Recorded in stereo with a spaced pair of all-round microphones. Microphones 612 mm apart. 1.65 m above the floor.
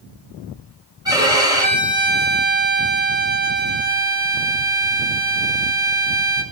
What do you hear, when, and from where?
1.1 s a violin: 5° right (ahead or behind), 7.5 m